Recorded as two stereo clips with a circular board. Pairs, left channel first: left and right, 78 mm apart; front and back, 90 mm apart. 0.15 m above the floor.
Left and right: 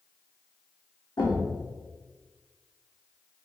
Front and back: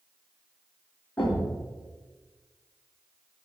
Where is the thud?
70° left, 2.5 m.